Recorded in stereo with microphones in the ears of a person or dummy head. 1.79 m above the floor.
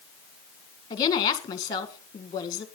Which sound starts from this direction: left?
A woman speaking, at 0.9 s.